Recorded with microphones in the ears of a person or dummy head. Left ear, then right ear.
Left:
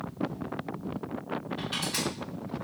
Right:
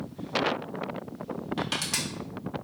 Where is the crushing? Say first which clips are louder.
Right 3 dB; 60° right (ahead or behind), 1.3 m.